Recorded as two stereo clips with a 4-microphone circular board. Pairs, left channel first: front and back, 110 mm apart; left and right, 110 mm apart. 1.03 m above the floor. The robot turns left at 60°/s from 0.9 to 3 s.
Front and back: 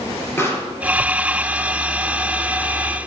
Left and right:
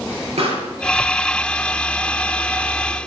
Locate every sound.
0.4 s a pop: 65° right, 4.5 m